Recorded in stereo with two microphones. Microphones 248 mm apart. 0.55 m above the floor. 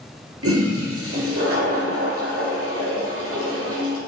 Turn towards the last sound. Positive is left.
turn(degrees=-65)  # may be behind; listen again after turning